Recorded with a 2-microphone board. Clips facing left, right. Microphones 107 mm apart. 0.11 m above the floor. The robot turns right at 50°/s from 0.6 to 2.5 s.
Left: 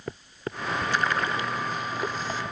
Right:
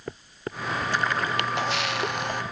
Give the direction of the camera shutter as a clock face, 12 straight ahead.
4 o'clock.